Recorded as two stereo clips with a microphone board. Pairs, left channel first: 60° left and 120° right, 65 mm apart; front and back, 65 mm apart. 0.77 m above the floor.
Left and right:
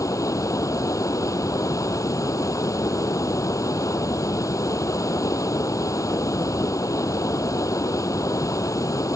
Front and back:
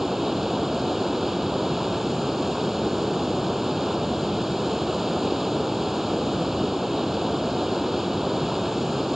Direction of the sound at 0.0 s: 95° left.